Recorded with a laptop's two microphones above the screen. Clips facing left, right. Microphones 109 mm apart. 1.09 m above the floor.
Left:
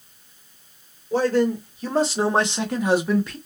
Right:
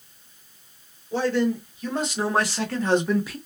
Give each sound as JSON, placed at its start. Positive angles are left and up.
{"t": 1.1, "sound": "a man speaking", "side_deg": 40, "distance_m": 1.6}